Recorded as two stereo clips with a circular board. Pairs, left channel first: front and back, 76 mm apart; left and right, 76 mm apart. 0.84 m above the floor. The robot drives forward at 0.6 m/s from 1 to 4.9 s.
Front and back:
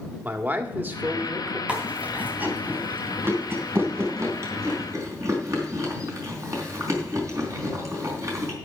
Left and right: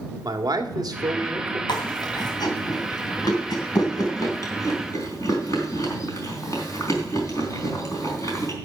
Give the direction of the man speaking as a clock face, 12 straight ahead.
4 o'clock.